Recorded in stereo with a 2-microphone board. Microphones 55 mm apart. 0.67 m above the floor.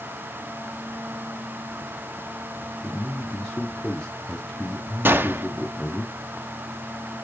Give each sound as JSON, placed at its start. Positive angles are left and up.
{"t": 2.8, "sound": "a man speaking", "side_deg": 25, "distance_m": 1.1}
{"t": 5.0, "sound": "a gunshot", "side_deg": -35, "distance_m": 0.5}